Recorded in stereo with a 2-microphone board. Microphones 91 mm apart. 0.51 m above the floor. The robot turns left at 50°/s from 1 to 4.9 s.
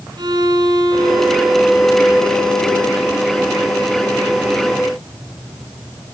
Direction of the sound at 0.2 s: 130° right.